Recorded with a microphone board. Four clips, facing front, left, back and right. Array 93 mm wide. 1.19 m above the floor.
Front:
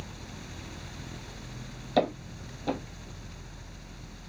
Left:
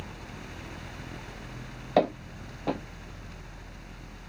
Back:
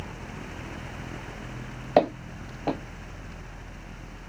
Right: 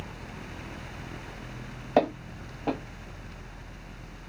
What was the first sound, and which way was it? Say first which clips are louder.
Footsteps: even, back 5 dB; 165° right.